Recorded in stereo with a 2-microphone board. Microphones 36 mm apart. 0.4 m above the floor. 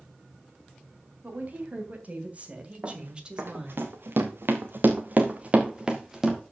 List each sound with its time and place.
1.2 s a woman speaking: 50° right (ahead or behind), 3 m; by 3.8 s 15° right (ahead or behind), 2 m
2.8 s running footsteps: 60° right (ahead or behind), 3.5 m; by 6.4 s 10° right (ahead or behind), 3 m